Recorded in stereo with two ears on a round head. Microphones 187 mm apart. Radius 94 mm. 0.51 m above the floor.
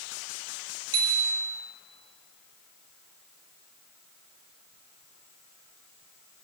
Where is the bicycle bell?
25° right (ahead or behind), 6.5 m.